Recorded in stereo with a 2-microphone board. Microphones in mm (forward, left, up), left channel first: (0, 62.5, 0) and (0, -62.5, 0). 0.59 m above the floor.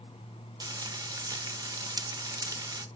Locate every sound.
0.6 s frying: 30° right (ahead or behind), 0.5 m